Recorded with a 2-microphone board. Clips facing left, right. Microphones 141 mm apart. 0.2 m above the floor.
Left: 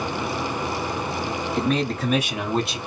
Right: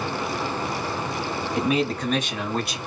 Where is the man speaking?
15° right (ahead or behind), 1.0 m; by 2.8 s 25° left (ahead or behind), 1.1 m.